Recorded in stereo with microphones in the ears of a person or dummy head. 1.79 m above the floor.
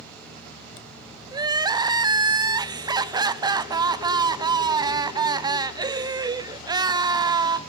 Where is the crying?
20° right (ahead or behind), 0.6 m.